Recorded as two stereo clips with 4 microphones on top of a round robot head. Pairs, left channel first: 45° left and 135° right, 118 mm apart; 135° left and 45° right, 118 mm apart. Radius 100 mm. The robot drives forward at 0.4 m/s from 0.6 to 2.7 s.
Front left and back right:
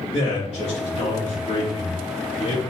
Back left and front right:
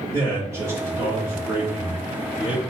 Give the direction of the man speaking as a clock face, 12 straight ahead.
11 o'clock.